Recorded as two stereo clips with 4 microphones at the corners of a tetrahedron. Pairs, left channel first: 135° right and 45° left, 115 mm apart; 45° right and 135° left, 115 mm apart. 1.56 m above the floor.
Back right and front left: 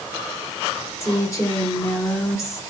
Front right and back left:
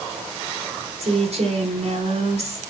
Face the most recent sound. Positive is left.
turn(degrees=160)